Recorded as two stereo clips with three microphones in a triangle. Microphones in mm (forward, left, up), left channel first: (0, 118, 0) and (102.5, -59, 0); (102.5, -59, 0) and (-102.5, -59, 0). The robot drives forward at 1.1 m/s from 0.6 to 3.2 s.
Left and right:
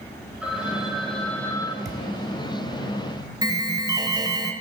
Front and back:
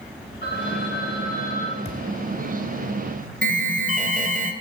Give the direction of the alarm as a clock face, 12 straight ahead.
4 o'clock.